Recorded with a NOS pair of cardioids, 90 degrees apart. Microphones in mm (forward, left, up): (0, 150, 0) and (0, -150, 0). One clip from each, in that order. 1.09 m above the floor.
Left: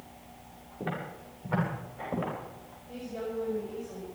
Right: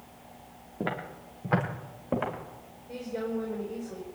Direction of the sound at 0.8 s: 60° right.